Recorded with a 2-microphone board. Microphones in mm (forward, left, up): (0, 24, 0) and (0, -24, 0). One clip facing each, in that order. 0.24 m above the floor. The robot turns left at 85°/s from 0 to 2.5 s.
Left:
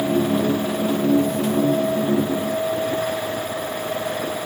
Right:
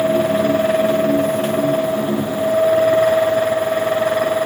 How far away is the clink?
No clink in this recording.